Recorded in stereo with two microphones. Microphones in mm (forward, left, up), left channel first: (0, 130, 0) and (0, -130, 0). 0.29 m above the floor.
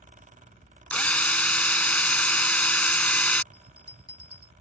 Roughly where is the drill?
Centre.